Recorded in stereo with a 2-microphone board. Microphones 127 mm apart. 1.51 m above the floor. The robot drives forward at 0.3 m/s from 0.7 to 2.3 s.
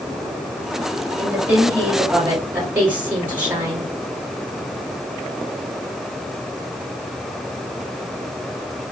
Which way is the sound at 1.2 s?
20° right (ahead or behind).